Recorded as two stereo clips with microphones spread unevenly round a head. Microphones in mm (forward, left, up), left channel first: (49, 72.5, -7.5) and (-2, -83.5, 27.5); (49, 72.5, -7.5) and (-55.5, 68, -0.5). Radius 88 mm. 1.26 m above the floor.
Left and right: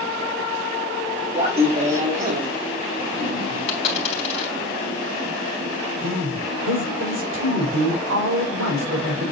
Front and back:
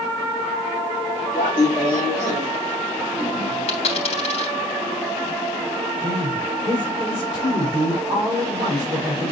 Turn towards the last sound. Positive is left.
turn(degrees=-110)